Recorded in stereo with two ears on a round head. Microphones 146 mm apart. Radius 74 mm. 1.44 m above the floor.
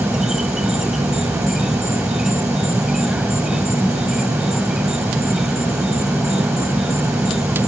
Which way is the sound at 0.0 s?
5° right (ahead or behind).